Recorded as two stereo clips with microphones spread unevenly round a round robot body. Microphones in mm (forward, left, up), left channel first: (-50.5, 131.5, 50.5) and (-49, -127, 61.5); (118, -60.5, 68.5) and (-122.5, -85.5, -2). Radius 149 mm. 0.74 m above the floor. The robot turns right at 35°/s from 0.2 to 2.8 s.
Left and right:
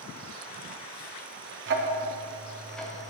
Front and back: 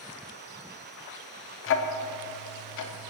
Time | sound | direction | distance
1.7 | ticking | 35° right | 0.6 m